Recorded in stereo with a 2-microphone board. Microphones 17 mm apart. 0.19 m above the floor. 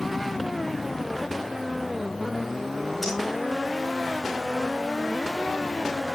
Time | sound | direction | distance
3.0 | breathing | 5° left (ahead or behind) | 8 m